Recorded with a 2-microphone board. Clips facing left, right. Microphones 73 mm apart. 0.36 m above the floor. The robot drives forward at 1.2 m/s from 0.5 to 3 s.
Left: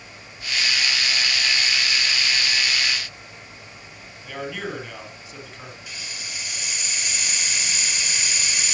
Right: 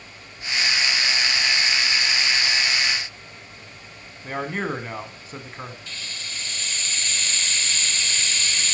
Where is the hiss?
15° left (ahead or behind), 1.5 m.